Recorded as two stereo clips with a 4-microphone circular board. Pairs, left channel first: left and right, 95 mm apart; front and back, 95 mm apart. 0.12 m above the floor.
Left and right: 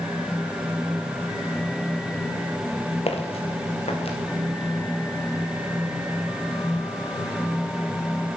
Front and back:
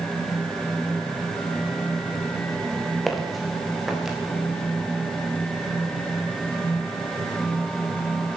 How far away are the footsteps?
About 2.5 m.